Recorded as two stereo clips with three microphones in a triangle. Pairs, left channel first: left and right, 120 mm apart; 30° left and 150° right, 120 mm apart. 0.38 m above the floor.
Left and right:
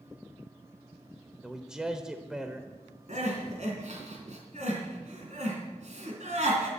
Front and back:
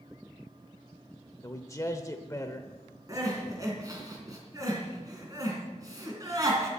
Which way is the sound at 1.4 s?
10° right.